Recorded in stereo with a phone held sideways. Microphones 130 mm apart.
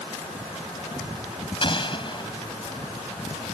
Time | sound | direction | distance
1.6 | an explosion | 40° left (ahead or behind) | ?